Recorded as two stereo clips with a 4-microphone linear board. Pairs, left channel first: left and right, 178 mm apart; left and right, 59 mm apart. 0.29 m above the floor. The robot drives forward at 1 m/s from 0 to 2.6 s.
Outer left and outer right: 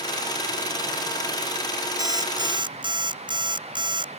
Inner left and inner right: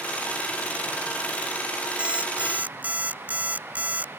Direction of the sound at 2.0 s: 20° right (ahead or behind).